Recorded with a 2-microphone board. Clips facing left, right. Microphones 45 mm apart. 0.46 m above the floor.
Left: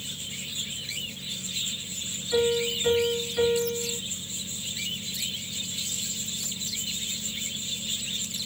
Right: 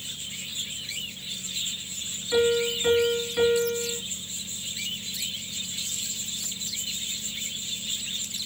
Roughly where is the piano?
Centre.